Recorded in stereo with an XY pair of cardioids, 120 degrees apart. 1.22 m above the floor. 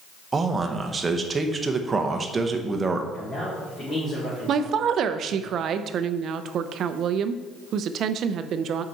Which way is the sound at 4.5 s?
55° right.